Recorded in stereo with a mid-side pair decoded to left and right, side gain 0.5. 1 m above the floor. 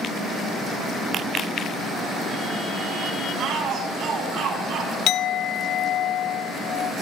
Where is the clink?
65° left, 0.5 m.